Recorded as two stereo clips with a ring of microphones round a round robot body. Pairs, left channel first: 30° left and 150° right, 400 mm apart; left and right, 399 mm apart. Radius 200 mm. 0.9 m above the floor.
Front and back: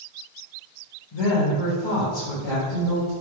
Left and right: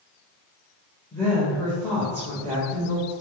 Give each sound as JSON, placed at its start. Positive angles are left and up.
{"t": 1.1, "sound": "a woman speaking", "azimuth_deg": 5, "distance_m": 3.5}